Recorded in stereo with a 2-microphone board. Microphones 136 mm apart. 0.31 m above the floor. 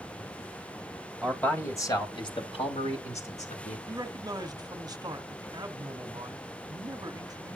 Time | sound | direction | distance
1.2 | a man speaking | 5° left (ahead or behind) | 2 m
3.9 | a man speaking | 30° right (ahead or behind) | 1.1 m